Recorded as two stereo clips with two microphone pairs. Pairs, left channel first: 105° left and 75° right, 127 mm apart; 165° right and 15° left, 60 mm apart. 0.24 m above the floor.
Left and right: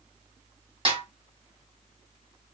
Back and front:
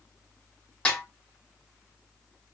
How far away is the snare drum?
About 1.0 m.